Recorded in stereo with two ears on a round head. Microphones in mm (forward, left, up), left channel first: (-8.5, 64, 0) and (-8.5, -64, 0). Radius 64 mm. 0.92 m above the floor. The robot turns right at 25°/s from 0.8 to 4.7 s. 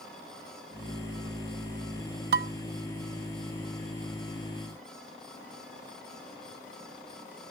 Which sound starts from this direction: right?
Dishes clattering, at 2.3 s.